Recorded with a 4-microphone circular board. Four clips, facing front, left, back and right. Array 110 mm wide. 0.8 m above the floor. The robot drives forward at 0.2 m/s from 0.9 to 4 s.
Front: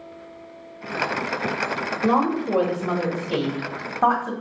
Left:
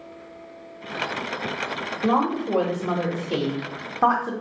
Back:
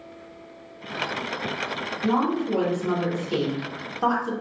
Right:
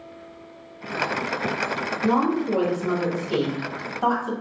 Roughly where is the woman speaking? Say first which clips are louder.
Even, front 2 dB; ahead left.